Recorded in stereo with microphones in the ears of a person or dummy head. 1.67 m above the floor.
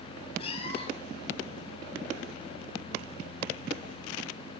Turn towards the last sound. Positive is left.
turn(degrees=35)  # may be behind; listen again after turning